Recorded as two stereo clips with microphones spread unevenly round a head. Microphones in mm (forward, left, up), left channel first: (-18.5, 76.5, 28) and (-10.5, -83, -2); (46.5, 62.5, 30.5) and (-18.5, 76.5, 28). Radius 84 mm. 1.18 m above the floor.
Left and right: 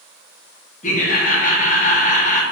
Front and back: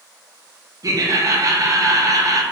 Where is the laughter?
140° left, 1.8 m.